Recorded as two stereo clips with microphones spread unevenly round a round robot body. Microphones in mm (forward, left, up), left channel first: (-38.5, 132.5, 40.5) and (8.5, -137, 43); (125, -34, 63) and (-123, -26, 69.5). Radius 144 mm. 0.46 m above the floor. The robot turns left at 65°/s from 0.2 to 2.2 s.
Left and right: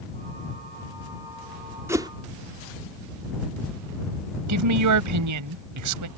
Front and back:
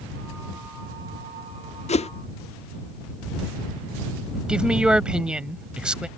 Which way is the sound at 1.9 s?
10° right.